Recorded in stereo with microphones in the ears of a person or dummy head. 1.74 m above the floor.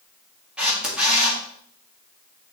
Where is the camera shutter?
10° right (ahead or behind), 2 m.